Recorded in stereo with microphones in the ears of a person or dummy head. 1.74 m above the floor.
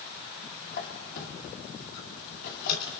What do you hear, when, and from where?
0.7 s a squeak: 60° left (ahead or behind), 2.5 m